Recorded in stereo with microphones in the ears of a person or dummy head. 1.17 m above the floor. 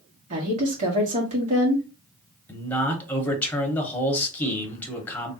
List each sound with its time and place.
0.3 s a woman speaking: 35° right (ahead or behind), 1.5 m
2.5 s a man speaking: 5° left (ahead or behind), 1.0 m